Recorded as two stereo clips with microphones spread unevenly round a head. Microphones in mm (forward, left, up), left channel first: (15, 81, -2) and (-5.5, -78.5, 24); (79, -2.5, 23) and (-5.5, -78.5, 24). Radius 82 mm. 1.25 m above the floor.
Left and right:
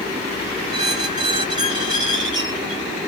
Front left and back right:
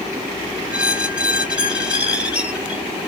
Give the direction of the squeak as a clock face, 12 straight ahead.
2 o'clock.